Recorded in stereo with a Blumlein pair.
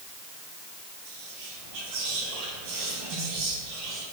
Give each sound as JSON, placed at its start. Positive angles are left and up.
{"t": 1.1, "sound": "whispering", "azimuth_deg": -35, "distance_m": 3.0}